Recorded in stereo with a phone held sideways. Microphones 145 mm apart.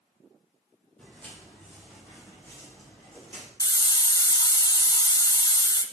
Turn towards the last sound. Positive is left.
turn(degrees=30)  # may be behind; listen again after turning